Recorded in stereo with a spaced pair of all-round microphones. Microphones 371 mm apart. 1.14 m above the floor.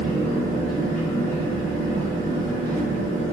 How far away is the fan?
About 1.0 m.